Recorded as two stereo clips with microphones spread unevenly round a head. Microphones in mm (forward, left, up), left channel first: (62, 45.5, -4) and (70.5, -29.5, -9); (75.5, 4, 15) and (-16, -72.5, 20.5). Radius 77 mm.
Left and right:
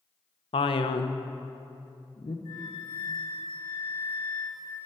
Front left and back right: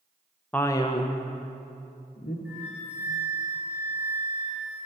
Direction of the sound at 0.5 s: 120° left.